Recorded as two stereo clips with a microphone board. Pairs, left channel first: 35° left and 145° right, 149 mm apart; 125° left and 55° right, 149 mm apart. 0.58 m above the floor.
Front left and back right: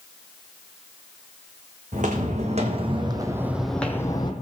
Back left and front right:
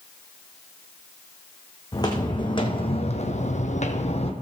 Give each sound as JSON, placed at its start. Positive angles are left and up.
{"t": 1.9, "sound": "footsteps", "azimuth_deg": -175, "distance_m": 1.9}